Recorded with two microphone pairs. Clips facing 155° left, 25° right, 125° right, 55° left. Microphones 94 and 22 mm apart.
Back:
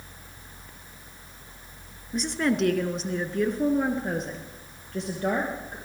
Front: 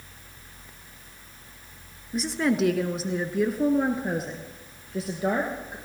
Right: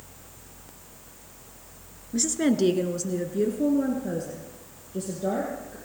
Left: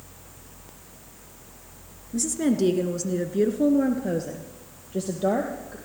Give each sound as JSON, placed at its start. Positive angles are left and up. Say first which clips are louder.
{"t": 2.1, "sound": "a woman speaking", "louder": "front 1 dB, even", "azimuth_deg": -110, "distance_m": 1.3}